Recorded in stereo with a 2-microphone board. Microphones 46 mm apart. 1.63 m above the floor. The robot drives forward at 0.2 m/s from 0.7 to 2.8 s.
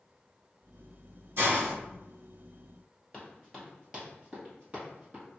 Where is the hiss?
55° right (ahead or behind), 1.5 m; by 1.7 s 50° right (ahead or behind), 1.6 m.